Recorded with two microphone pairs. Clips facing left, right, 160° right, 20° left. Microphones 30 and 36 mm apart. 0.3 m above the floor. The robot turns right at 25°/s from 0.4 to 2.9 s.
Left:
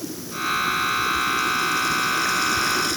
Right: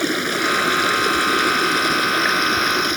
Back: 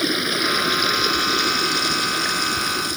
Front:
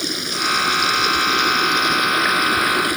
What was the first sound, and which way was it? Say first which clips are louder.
Running water: right 9 dB, back 2 dB; 90° right.